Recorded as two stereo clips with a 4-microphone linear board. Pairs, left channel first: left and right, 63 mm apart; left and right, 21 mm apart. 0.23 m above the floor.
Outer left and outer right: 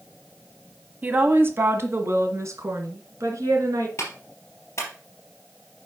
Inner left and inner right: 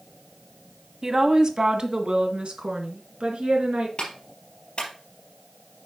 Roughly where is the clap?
Left.